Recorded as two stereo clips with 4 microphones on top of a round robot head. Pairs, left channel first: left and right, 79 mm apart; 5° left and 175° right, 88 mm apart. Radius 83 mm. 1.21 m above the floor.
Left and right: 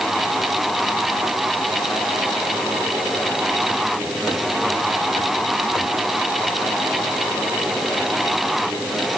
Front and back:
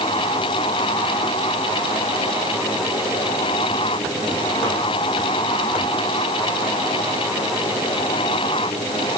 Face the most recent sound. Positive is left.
No sound to turn to.